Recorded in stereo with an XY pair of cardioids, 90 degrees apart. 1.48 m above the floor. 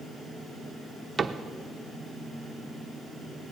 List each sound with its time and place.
0.0 s a fan: 35° left, 6.5 m
1.2 s a cupboard door: 35° right, 0.8 m